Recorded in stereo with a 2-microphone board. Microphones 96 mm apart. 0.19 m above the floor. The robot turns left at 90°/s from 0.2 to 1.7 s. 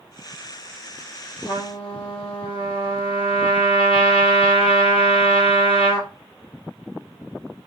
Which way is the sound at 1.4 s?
65° left (ahead or behind).